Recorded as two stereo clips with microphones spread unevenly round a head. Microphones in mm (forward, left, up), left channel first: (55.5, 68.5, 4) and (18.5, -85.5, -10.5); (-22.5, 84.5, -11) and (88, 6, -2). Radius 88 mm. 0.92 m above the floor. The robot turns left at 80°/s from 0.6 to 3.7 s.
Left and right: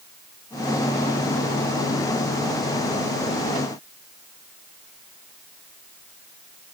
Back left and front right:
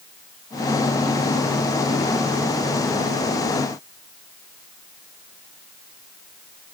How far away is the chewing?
No chewing in this recording.